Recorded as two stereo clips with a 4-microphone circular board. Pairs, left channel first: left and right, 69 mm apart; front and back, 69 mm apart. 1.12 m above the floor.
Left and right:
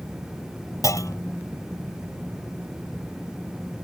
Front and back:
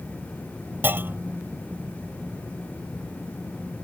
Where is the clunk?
120° left.